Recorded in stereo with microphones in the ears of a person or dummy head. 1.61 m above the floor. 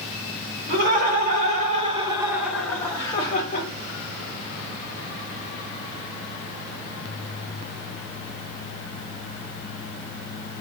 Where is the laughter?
55° right (ahead or behind), 1.4 m; by 3.7 s 45° left (ahead or behind), 1.0 m.